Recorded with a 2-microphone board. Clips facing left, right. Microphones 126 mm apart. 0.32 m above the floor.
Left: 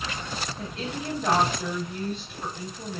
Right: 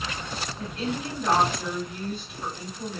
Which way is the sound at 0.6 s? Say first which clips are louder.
Right 3 dB; 20° left (ahead or behind).